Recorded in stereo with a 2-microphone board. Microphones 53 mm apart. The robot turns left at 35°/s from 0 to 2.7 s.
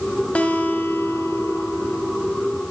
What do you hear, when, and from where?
0.3 s a guitar: 155° left, 2.5 m; by 2.3 s 90° left, 2.5 m